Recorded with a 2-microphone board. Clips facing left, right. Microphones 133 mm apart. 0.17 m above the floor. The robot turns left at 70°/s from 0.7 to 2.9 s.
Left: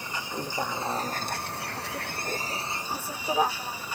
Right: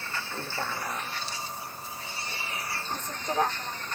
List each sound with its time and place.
0.0 s a vehicle: 165° left; by 4.0 s 10° left